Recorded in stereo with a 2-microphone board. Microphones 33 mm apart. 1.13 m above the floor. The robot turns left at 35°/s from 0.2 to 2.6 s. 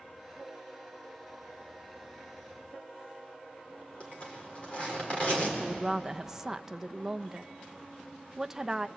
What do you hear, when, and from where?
4.0 s a zipper: 40° left (ahead or behind), 4.5 m
5.6 s a woman speaking: 15° right (ahead or behind), 0.5 m